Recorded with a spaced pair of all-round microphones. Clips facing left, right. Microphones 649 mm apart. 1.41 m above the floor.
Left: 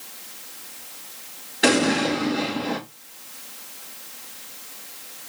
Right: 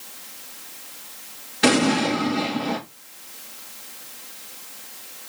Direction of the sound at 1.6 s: 30° right (ahead or behind).